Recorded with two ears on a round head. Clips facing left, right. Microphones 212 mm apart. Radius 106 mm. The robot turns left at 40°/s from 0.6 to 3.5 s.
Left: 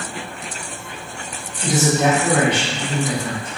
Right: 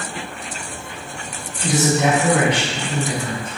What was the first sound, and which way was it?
A man speaking, 170° left.